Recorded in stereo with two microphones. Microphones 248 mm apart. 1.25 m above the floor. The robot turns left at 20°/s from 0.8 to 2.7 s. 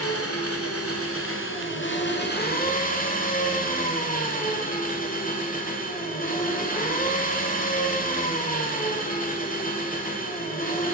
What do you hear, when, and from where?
0.0 s an engine running: 75° left, 1.6 m; by 10.9 s 35° left, 1.6 m